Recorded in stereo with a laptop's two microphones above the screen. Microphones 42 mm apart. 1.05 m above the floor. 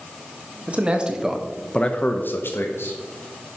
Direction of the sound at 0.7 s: 35° right (ahead or behind).